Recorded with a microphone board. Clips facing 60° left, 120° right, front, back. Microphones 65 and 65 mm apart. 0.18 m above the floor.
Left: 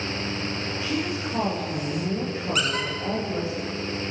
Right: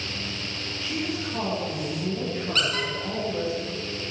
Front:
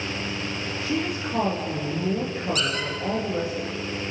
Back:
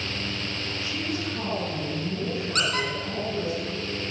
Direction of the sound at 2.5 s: 135° left.